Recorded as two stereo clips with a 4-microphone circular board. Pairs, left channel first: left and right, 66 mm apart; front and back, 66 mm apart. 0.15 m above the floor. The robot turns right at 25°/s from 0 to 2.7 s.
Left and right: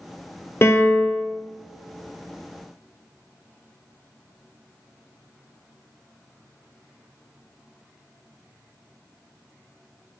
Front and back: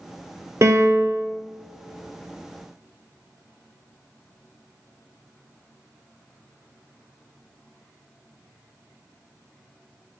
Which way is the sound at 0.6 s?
140° left.